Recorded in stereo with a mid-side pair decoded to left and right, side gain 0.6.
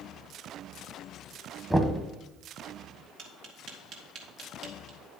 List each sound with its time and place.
1.7 s knocking: 10° right, 1.3 m
3.2 s tapping: 60° right, 2 m